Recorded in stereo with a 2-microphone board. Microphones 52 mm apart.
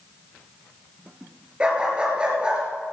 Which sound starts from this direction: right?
A dog barking, at 1.6 s.